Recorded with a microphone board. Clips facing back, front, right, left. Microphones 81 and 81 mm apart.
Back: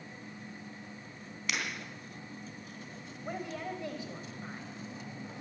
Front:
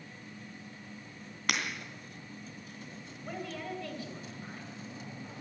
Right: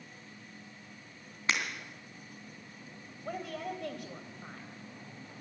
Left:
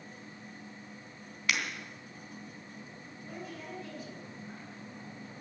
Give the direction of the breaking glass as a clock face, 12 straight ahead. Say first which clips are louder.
Front 3 dB, even; 1 o'clock.